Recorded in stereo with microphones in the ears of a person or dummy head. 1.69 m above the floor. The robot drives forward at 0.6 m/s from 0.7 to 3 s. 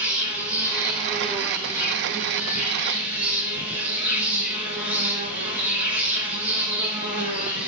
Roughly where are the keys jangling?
No keys jangling in this recording.